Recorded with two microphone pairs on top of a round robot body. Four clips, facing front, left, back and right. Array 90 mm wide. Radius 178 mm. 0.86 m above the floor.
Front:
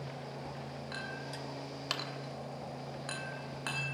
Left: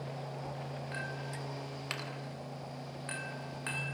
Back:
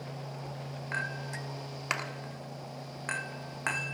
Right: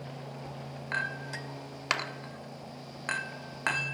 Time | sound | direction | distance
0.9 | a clink | 110° right | 1.4 m